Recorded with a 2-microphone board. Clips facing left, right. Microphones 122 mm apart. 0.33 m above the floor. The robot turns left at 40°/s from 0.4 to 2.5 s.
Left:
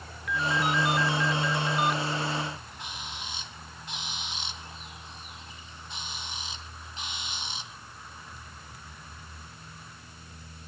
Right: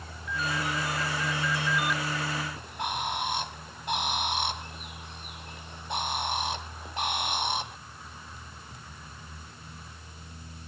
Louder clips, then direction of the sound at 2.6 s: Right 10 dB; 60° right (ahead or behind).